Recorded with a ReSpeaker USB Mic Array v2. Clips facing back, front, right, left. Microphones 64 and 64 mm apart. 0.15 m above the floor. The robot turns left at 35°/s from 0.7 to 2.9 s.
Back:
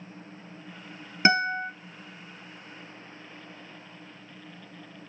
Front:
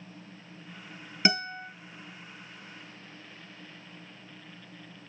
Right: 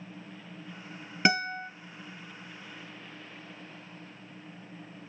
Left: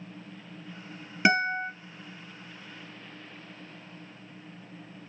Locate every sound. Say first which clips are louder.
1.2 s a guitar: back 7 dB, left 3 dB; 165° left, 0.8 m; by 1.7 s 150° left, 0.8 m